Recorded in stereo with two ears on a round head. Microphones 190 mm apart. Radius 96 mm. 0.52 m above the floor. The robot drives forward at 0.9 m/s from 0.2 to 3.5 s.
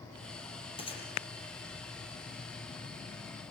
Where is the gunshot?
25° left (ahead or behind), 5 m.